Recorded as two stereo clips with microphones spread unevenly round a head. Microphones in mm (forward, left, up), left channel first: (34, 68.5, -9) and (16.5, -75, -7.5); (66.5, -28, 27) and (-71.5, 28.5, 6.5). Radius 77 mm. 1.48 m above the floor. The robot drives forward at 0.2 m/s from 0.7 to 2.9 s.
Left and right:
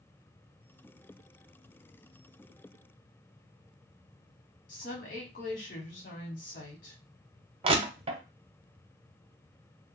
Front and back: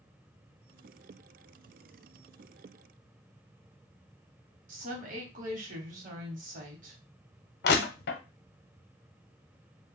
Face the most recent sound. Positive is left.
turn(degrees=-45)